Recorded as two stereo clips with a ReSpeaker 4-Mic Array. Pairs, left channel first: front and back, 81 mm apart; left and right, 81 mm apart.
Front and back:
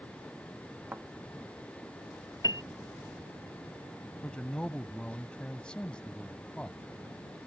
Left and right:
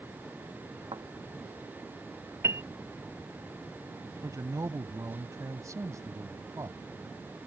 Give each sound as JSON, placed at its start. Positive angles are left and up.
{"t": 0.9, "sound": "a thud", "azimuth_deg": -115}
{"t": 2.4, "sound": "a piano", "azimuth_deg": -35}
{"t": 4.2, "sound": "a man speaking", "azimuth_deg": -75}